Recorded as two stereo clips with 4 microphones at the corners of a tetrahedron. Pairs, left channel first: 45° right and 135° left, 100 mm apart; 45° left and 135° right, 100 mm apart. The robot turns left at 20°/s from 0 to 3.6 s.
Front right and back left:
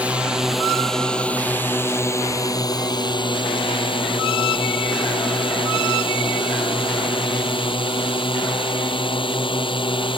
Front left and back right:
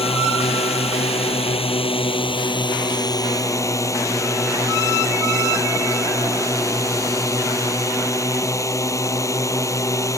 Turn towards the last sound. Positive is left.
turn(degrees=-15)